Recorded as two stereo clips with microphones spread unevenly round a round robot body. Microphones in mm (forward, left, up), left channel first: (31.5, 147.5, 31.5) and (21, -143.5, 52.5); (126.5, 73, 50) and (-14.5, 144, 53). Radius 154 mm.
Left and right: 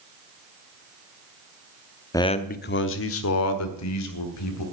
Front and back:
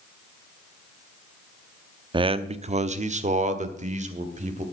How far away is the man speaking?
About 0.7 m.